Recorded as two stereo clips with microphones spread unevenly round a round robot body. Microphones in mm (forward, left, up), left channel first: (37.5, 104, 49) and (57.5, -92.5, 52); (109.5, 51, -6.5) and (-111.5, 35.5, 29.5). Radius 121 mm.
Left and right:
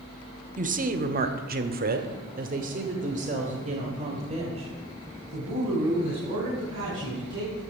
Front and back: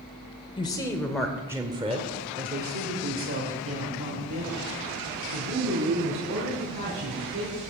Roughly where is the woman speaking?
Ahead right.